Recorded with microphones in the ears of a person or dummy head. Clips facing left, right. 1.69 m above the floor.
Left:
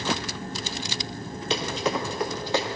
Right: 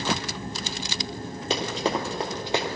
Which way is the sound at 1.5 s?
40° right (ahead or behind).